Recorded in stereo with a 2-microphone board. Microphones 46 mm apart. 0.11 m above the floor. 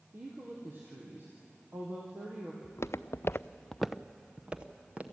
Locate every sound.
0.1 s a woman speaking: 50° right (ahead or behind), 3 m
2.6 s footsteps: 70° left (ahead or behind), 0.9 m; by 5.0 s 30° right (ahead or behind), 1.9 m